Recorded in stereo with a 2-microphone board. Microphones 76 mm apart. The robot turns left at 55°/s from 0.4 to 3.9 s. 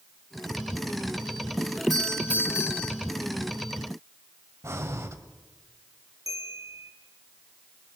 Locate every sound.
1.9 s a doorbell: straight behind, 6 m; by 3.0 s 120° left, 6 m
4.6 s breathing: 40° right (ahead or behind), 1.4 m
6.3 s a bell: 50° right (ahead or behind), 3 m